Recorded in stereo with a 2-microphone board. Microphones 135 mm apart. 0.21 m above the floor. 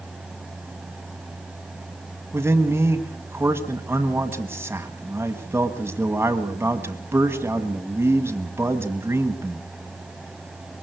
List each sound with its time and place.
2.3 s a man speaking: 15° right (ahead or behind), 1.5 m